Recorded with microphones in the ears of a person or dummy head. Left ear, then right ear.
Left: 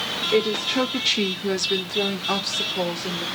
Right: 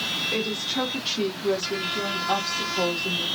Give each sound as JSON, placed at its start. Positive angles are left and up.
{"t": 0.3, "sound": "a woman speaking", "side_deg": 30, "distance_m": 0.7}